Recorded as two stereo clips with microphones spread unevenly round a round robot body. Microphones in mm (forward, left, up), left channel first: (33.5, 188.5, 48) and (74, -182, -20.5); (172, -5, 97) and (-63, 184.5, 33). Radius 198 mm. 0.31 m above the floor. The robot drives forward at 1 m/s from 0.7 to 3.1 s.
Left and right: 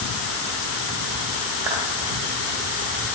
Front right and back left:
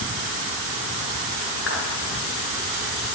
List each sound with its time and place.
1.7 s a clap: 100° right, 4.5 m